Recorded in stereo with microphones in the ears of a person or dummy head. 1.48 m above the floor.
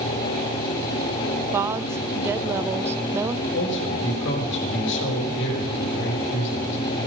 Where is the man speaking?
65° left (ahead or behind), 3 m.